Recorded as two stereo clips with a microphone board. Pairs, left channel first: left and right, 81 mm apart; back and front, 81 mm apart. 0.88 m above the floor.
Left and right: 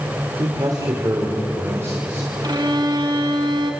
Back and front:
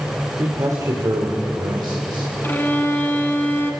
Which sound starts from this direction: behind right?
A violin, at 2.4 s.